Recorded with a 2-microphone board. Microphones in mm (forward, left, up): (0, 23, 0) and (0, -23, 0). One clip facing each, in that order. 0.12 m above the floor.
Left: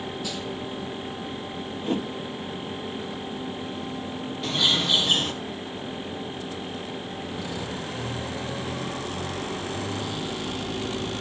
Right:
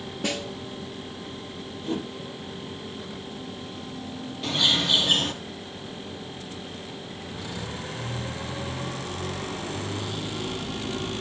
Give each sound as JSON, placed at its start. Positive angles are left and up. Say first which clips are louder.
{"t": 0.2, "sound": "a snare drum", "louder": "right 2 dB", "side_deg": -60, "distance_m": 1.3}
{"t": 1.8, "sound": "a whoosh", "louder": "left 3 dB", "side_deg": 40, "distance_m": 2.5}
{"t": 4.4, "sound": "a bird", "louder": "even", "side_deg": 0, "distance_m": 2.0}